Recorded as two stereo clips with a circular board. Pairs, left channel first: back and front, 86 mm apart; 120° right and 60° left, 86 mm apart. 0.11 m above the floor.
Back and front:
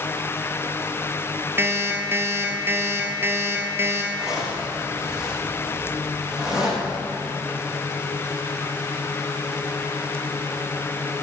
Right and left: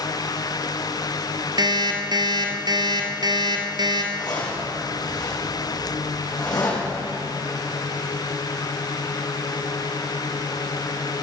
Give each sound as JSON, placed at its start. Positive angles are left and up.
{"t": 1.6, "sound": "an alarm clock", "azimuth_deg": 55, "distance_m": 1.5}
{"t": 4.1, "sound": "a zipper", "azimuth_deg": -80, "distance_m": 5.5}